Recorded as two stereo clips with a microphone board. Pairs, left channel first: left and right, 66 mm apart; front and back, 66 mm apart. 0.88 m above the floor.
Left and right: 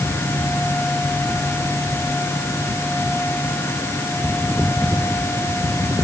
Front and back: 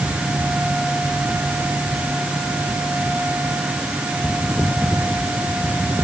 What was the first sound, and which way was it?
Only background noise.